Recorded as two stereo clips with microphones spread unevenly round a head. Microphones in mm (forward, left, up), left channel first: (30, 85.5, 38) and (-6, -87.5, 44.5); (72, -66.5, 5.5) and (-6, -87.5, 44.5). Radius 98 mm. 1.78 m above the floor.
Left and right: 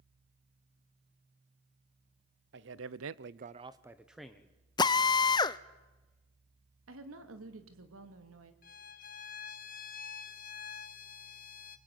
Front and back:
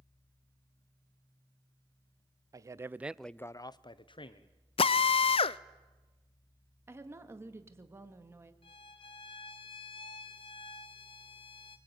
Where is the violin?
70° left, 1.0 m.